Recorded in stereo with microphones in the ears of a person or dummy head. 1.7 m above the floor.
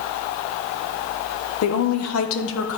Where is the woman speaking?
65° left (ahead or behind), 1.2 m; by 2.8 s 75° left (ahead or behind), 1.6 m.